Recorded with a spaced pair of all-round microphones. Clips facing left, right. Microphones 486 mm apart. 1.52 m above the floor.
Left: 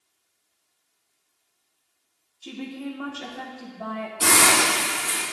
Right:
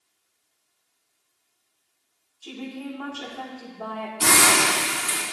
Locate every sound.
2.4 s a woman speaking: 40° left (ahead or behind), 1.3 m
4.2 s a hiss: 15° right (ahead or behind), 3.5 m